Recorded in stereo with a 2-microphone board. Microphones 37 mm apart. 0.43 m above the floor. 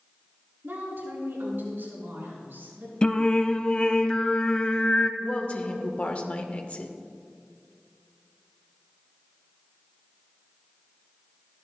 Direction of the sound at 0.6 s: 65° right (ahead or behind).